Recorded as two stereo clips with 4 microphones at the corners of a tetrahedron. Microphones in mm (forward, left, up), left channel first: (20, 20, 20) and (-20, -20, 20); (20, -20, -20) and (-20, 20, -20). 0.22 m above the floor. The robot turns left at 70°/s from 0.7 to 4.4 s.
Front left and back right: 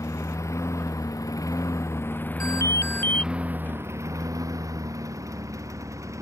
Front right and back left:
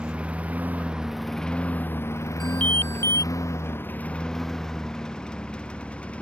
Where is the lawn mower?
65° left; by 6.2 s 115° right.